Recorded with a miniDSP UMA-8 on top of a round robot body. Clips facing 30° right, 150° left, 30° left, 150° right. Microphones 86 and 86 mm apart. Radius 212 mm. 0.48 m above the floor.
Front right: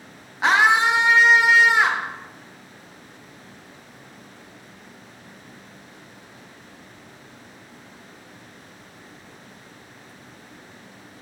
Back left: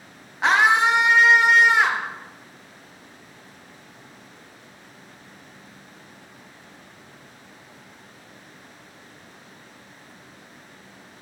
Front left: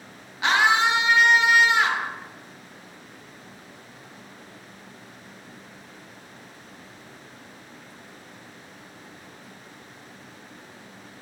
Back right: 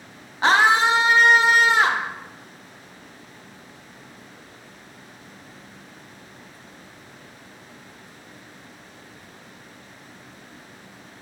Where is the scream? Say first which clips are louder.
Even, back right 3 dB; 120° right, 0.8 m.